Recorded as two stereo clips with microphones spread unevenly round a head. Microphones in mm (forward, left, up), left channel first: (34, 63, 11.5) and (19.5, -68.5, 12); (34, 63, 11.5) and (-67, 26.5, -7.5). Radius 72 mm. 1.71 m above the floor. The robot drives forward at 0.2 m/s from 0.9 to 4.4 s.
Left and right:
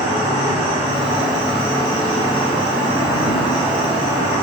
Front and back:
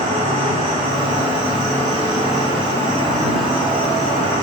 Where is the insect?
150° right, 3.5 m; by 4.4 s 155° right, 4 m.